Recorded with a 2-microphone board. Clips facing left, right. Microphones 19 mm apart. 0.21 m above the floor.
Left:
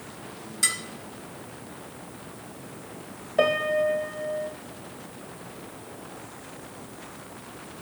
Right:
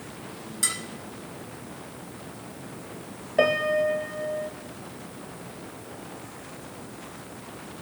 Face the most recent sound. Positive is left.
turn(degrees=-10)  # may be behind; listen again after turning